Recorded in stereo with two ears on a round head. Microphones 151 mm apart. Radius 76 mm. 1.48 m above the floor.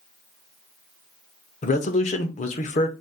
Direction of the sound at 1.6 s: 45° left (ahead or behind).